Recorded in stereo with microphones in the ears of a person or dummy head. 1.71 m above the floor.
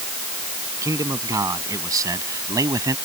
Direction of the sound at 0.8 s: 20° right (ahead or behind).